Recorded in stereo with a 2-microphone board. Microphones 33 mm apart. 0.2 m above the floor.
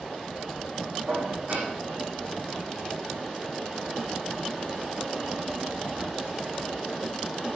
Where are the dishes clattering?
55° right (ahead or behind), 6.5 m.